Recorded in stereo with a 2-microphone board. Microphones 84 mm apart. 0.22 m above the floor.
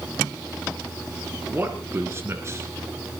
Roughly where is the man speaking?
Right.